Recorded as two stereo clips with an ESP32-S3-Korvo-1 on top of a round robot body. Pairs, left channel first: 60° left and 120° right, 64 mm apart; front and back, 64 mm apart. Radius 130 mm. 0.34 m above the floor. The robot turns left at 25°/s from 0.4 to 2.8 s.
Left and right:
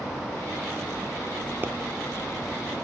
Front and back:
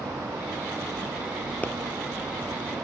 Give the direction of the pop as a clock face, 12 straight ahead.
2 o'clock.